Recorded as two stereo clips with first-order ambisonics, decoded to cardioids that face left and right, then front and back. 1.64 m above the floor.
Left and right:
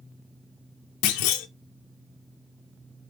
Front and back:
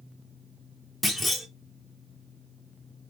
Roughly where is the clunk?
Left.